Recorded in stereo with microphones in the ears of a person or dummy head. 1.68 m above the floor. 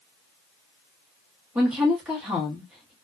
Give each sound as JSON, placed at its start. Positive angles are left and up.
{"t": 1.6, "sound": "a woman speaking", "side_deg": 0, "distance_m": 1.0}